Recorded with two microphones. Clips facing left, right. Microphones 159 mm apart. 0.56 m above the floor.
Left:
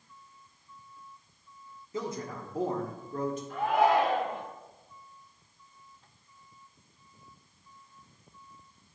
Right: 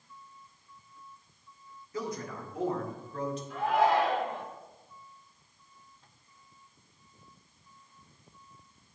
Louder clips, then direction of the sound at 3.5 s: Left 1 dB; 50° left (ahead or behind).